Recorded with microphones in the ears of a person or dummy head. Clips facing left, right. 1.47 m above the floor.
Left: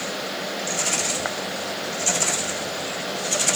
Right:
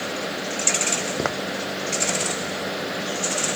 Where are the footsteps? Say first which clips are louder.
Right 4 dB; 60° right (ahead or behind).